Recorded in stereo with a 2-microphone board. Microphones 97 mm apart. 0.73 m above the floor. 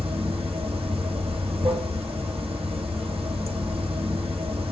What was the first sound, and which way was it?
Running water, 80° right.